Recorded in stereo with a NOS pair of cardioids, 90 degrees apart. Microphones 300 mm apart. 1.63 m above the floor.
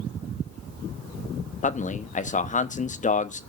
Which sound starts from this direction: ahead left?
A man speaking, at 1.6 s.